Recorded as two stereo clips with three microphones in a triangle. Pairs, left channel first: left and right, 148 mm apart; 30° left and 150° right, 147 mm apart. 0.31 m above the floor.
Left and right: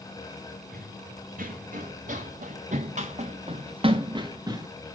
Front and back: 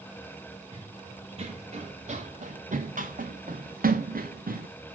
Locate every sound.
0.7 s running footsteps: 95° right, 2.5 m; by 4.7 s 160° right, 1.6 m